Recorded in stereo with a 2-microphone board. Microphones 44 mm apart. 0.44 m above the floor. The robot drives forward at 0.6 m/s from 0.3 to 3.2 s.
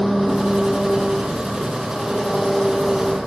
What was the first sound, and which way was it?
An engine running, centre (ahead or behind).